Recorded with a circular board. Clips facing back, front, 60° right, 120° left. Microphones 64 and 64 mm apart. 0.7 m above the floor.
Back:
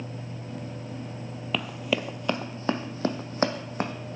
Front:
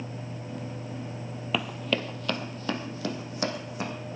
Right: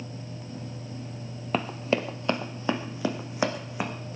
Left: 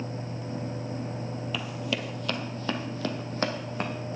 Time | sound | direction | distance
1.5 | running footsteps | 85° right | 1.1 m